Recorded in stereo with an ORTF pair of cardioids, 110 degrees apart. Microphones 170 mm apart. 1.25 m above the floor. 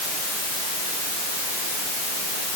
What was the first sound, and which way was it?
Only background noise.